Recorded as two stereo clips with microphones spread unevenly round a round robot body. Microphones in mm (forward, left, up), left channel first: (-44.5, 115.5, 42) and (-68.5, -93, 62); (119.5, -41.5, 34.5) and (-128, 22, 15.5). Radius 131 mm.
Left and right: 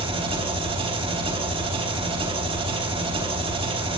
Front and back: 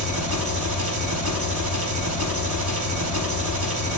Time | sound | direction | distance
0.0 | an engine running | 160° right | 4.5 m